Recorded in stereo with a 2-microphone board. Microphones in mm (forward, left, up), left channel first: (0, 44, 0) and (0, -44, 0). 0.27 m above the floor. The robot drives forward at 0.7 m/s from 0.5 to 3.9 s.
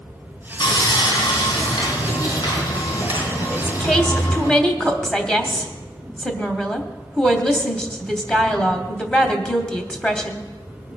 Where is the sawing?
60° left (ahead or behind), 2.5 m; by 4.5 s 45° left (ahead or behind), 3.5 m.